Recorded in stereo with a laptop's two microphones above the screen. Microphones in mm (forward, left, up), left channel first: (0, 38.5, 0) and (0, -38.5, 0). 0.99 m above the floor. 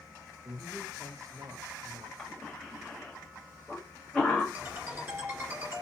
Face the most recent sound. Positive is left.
turn(degrees=-35)  # may be behind; listen again after turning